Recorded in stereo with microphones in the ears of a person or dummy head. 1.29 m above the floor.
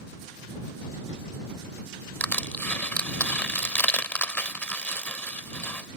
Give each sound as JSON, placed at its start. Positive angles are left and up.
{"t": 2.2, "sound": "crushing", "side_deg": 10}